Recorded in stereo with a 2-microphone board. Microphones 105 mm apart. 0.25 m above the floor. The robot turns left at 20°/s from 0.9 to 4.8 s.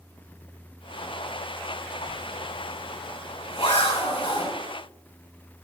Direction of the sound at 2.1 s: 45° left (ahead or behind).